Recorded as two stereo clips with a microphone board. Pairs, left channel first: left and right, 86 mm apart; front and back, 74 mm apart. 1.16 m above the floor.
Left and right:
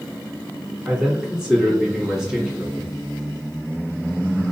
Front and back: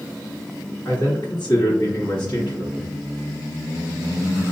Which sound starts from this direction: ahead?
A man speaking, at 0.8 s.